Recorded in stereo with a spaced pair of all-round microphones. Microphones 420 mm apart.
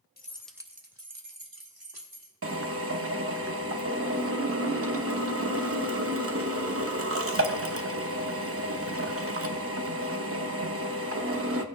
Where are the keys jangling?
25° left (ahead or behind), 0.5 m; by 2.3 s 65° right (ahead or behind), 1.2 m.